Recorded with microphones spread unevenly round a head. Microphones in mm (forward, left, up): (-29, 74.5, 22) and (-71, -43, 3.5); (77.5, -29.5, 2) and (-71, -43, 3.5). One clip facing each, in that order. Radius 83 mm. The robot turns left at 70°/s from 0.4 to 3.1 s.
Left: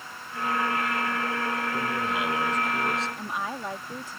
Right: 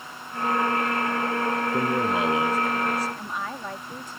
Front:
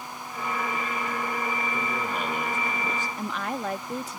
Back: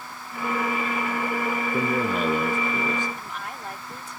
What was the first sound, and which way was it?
A man speaking, 135° right.